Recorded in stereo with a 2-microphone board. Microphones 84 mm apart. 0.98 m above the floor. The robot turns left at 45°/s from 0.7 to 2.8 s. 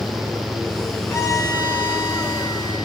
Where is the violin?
145° left, 5 m; by 2.9 s 70° left, 5 m.